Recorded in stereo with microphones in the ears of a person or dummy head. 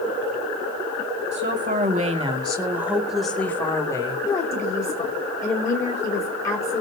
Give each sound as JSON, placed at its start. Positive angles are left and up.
{"t": 1.3, "sound": "a woman speaking", "side_deg": -45, "distance_m": 2.5}
{"t": 4.3, "sound": "a woman speaking", "side_deg": 20, "distance_m": 3.0}